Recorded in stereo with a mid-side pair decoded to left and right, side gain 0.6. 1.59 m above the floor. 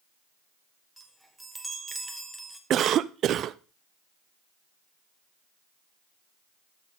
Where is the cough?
50° right, 0.6 m.